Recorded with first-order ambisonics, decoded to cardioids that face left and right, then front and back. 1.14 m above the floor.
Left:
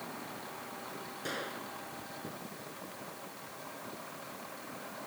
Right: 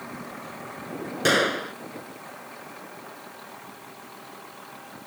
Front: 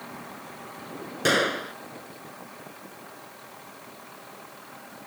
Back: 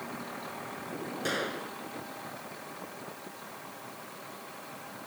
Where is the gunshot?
55° right.